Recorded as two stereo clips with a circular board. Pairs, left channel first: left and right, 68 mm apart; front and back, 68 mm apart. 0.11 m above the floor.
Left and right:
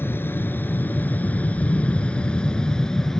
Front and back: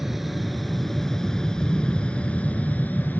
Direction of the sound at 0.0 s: 95° left.